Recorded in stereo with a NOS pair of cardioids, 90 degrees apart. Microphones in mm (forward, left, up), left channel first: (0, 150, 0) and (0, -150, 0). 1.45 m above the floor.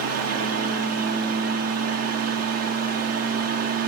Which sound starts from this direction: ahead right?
A fan, at 0.0 s.